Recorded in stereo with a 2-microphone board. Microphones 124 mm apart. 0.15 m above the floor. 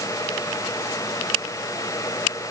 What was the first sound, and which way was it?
Only background noise.